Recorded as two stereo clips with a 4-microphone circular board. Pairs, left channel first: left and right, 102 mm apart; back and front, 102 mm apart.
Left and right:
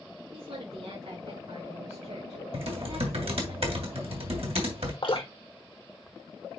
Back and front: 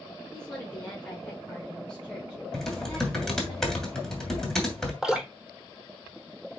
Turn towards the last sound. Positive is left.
turn(degrees=80)